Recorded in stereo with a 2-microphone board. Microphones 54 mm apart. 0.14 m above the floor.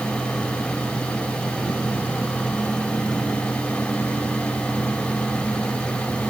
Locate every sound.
Only background noise.